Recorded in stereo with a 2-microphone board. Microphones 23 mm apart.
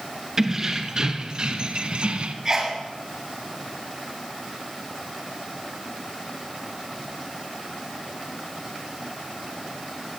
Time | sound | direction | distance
0.4 | keys jangling | 25° right (ahead or behind) | 2.0 m
2.5 | a sneeze | 30° right (ahead or behind) | 1.9 m